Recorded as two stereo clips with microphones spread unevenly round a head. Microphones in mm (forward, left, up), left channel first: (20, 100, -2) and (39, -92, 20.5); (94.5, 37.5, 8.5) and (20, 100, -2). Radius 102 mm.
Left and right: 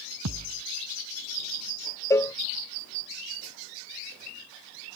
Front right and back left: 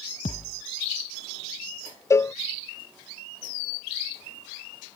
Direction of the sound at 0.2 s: 80° right.